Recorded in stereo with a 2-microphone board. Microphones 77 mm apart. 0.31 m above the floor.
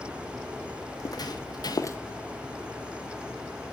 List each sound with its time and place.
0.9 s footsteps: 50° left (ahead or behind), 1.0 m; by 2.0 s 35° left (ahead or behind), 0.5 m